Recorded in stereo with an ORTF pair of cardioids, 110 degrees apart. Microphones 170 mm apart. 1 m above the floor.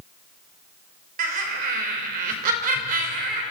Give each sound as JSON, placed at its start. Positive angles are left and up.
{"t": 1.2, "sound": "laughter", "azimuth_deg": -60, "distance_m": 3.5}